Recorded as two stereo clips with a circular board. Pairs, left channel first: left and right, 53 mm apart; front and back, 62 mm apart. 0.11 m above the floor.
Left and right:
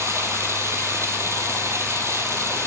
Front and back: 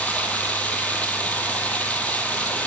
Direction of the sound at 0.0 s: 65° right.